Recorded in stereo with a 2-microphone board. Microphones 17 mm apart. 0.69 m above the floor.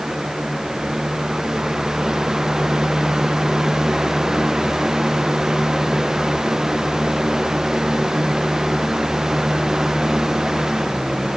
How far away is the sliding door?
I don't hear a sliding door.